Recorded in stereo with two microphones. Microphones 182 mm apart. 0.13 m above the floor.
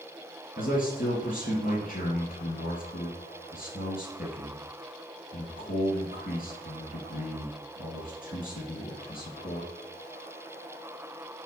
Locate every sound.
0.6 s a man speaking: 50° left (ahead or behind), 3 m